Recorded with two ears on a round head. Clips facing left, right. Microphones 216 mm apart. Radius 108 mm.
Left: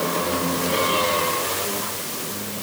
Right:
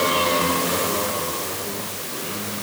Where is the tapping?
I don't hear tapping.